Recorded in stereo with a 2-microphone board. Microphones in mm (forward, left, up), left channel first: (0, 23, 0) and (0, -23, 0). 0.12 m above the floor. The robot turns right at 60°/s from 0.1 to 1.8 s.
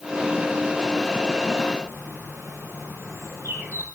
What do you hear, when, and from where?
1.8 s a bird: 70° right (ahead or behind), 5 m